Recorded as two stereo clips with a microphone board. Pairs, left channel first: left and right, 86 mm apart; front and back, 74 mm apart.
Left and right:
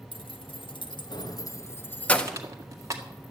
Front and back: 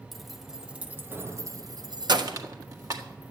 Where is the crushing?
140° right, 1.7 m.